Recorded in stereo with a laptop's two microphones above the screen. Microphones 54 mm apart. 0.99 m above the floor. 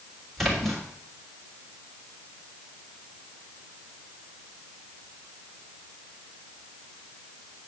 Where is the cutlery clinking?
I don't hear cutlery clinking.